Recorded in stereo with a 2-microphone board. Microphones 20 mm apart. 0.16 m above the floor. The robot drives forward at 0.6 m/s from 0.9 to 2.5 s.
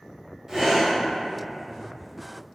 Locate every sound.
0.5 s breathing: 20° right (ahead or behind), 1.6 m